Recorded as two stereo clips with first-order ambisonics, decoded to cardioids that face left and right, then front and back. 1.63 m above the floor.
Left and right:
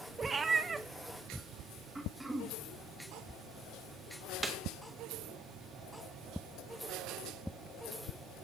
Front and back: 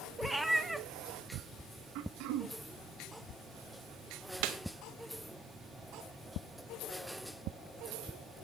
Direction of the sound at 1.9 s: 170° right.